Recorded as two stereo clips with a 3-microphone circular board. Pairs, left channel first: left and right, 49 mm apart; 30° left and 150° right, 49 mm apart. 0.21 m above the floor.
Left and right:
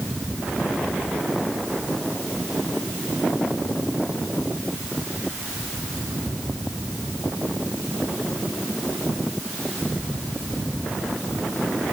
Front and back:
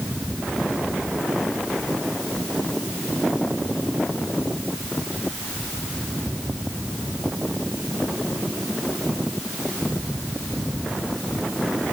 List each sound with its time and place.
Only background noise.